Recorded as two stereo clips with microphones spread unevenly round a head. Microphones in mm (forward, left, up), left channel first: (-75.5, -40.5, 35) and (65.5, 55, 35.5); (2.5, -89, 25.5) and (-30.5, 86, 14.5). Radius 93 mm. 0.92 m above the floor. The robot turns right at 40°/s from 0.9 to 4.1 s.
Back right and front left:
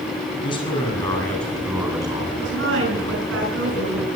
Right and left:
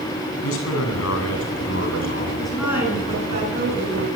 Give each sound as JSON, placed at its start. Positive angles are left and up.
{"t": 0.4, "sound": "a man speaking", "azimuth_deg": -80, "distance_m": 8.5}
{"t": 2.4, "sound": "a woman speaking", "azimuth_deg": 5, "distance_m": 9.5}